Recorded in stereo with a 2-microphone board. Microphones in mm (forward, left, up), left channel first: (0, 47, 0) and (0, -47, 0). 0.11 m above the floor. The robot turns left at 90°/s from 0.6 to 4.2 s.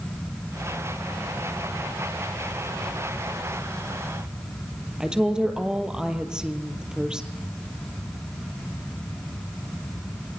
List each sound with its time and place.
5.0 s a woman speaking: 10° right (ahead or behind), 2.5 m